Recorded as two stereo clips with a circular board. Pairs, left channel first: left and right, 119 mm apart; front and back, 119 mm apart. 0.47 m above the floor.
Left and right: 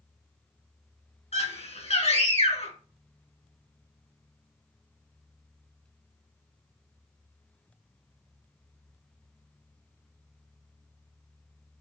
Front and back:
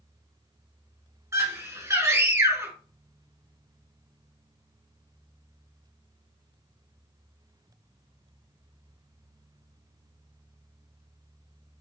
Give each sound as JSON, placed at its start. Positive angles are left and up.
{"t": 1.3, "sound": "a scream", "azimuth_deg": 110, "distance_m": 3.5}